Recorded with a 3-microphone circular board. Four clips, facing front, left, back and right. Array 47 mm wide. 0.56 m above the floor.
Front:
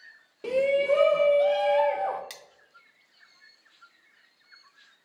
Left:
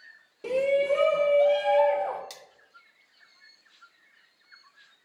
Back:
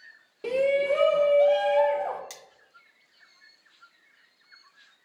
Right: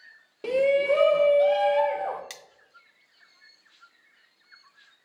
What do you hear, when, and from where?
0.4 s a shout: 105° right, 1.2 m; by 2.2 s 5° left, 1.1 m
2.3 s cutlery clinking: 75° right, 0.5 m